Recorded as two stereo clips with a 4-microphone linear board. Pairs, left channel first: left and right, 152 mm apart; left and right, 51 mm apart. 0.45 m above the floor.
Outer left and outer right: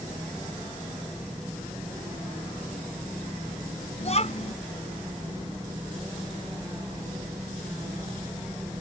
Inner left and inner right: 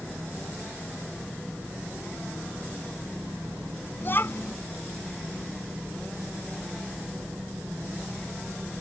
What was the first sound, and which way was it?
A child speaking, 45° left (ahead or behind).